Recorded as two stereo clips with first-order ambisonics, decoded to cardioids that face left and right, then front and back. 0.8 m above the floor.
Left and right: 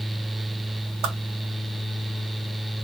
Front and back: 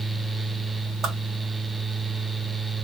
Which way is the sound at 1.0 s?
120° right.